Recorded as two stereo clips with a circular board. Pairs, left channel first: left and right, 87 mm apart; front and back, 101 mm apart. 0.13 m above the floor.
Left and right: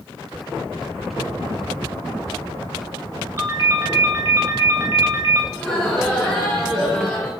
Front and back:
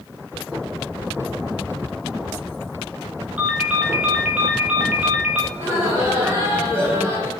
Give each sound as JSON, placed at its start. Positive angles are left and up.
{"t": 3.4, "sound": "a ringtone", "azimuth_deg": -115, "distance_m": 0.5}
{"t": 5.5, "sound": "laughter", "azimuth_deg": 160, "distance_m": 1.5}